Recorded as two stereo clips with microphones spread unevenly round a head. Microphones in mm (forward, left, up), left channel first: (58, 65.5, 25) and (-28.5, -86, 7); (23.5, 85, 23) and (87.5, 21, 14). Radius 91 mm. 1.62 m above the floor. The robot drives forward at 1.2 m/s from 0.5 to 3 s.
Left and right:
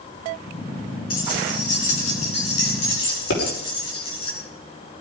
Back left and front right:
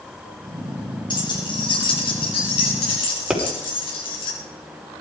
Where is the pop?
40° left, 5.5 m.